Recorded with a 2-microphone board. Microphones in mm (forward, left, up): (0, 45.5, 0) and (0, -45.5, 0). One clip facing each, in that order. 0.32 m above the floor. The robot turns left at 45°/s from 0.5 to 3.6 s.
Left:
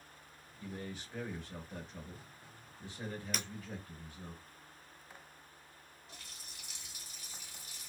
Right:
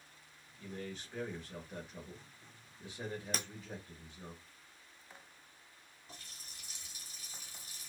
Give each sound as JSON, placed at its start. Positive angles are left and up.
{"t": 0.6, "sound": "a man speaking", "side_deg": 15, "distance_m": 0.9}
{"t": 3.3, "sound": "breaking glass", "side_deg": -40, "distance_m": 0.8}
{"t": 6.1, "sound": "a running tap", "side_deg": -35, "distance_m": 1.5}